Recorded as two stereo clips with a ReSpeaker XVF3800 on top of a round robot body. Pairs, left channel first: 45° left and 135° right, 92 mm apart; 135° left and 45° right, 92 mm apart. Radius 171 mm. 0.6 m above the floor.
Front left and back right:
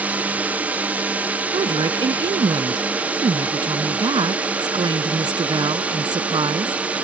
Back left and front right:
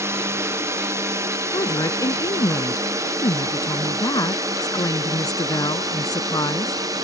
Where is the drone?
75° right; by 7.0 s 65° right.